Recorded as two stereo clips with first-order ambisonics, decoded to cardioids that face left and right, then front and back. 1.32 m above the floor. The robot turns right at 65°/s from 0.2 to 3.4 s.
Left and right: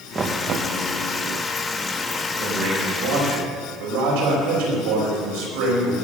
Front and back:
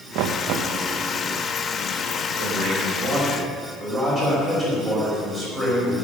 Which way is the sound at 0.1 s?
160° right.